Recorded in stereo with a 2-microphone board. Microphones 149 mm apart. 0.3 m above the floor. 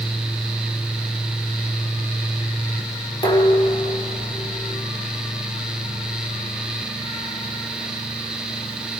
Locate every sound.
3.2 s dishes clattering: 30° left (ahead or behind), 5 m